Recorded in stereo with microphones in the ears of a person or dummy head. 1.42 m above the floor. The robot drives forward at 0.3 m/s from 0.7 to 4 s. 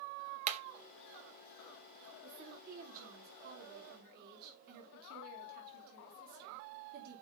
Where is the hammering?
50° right (ahead or behind), 1.4 m.